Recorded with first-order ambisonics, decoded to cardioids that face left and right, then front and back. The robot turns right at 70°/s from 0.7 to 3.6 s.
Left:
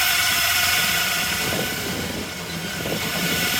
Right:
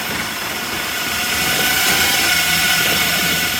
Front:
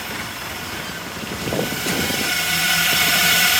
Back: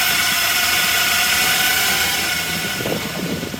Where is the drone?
155° left; by 3.6 s 5° right.